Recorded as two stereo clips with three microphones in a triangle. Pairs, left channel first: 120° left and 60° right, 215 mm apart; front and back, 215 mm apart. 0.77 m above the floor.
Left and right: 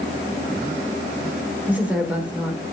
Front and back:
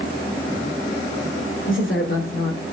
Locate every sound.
1.7 s a woman speaking: 25° left, 2.5 m